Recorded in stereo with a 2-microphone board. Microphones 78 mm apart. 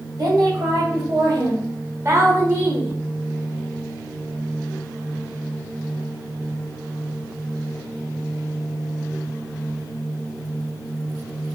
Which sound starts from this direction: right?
A woman speaking, at 0.2 s.